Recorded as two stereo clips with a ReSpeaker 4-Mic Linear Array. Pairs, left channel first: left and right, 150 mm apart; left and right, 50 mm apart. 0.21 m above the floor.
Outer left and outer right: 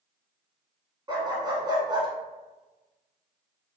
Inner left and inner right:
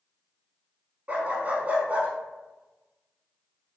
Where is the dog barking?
30° right (ahead or behind), 0.7 m.